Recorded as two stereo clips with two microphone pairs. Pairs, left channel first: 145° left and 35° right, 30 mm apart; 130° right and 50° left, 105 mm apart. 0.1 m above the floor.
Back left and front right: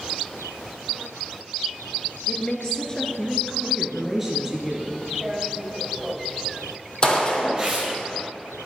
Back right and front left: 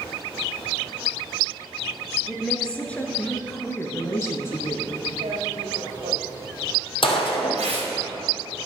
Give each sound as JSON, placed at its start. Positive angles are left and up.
{"t": 2.3, "sound": "a woman speaking", "azimuth_deg": 145, "distance_m": 1.5}
{"t": 5.2, "sound": "tearing paper", "azimuth_deg": 40, "distance_m": 4.0}
{"t": 7.0, "sound": "a gunshot", "azimuth_deg": -160, "distance_m": 1.8}